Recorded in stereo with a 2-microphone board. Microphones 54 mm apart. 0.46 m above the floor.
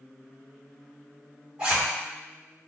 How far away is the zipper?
About 1.5 m.